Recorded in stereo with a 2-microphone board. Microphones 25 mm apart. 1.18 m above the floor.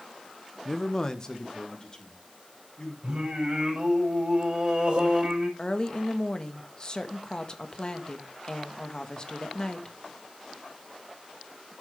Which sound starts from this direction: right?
Singing, at 3.0 s.